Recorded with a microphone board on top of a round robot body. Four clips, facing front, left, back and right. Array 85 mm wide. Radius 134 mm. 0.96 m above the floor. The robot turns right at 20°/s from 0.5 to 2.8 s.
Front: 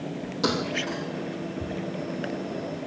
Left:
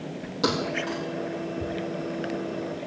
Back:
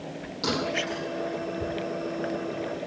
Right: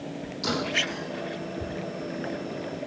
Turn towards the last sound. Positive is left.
turn(degrees=115)